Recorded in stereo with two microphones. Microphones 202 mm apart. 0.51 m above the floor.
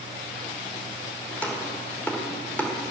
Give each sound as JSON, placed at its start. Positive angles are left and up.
{"t": 1.3, "sound": "chopping", "side_deg": 10, "distance_m": 1.3}